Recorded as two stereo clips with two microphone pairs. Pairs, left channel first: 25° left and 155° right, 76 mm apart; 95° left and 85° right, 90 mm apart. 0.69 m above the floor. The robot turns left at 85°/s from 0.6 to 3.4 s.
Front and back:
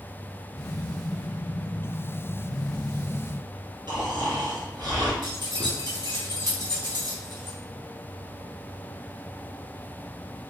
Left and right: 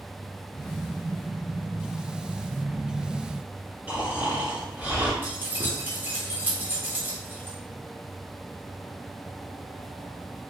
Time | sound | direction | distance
3.9 | snoring | 160° right | 2.0 m
5.2 | keys jangling | 150° right | 1.3 m